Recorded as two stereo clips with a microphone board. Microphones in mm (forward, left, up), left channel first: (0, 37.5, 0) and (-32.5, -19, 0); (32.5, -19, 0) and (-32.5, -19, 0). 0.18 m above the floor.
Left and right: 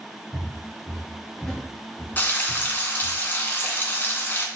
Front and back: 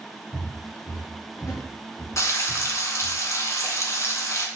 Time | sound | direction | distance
0.3 | footsteps | 40° right | 2.5 m
2.2 | frying | 10° left | 1.0 m